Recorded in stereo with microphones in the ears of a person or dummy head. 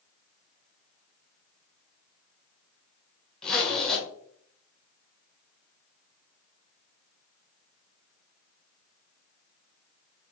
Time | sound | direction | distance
3.4 | a zipper | 5° left (ahead or behind) | 1.2 m